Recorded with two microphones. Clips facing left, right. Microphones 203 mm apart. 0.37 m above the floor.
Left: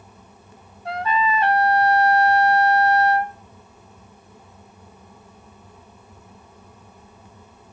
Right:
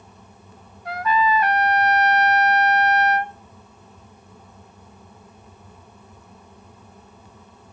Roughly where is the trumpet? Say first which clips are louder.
Right 1 dB; left.